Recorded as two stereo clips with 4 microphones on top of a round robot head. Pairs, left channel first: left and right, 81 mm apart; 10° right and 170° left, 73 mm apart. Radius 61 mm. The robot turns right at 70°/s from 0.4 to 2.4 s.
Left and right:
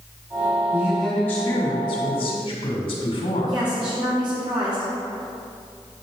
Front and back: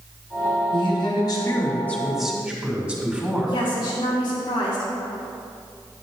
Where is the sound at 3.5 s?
50° right, 1.9 m.